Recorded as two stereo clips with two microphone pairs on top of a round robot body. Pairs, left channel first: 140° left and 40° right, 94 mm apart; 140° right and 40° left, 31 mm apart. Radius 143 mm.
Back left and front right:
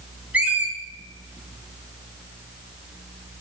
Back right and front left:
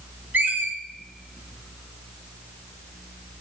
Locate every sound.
0.3 s a squeak: 35° left, 1.3 m